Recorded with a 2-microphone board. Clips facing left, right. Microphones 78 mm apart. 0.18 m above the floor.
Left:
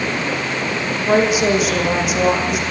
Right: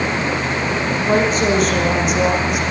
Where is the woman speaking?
10° left (ahead or behind), 9.5 m; by 2.6 s centre (ahead or behind), 10.5 m.